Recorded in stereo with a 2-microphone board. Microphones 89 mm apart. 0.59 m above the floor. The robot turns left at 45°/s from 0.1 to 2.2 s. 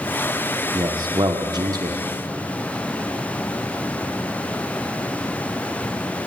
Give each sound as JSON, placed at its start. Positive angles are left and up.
{"t": 0.7, "sound": "a man speaking", "azimuth_deg": -70, "distance_m": 0.8}